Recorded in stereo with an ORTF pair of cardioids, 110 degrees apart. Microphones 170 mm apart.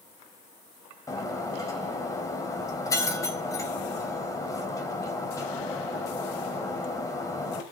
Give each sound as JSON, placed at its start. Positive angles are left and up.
{"t": 1.1, "sound": "breaking glass", "azimuth_deg": 20, "distance_m": 4.0}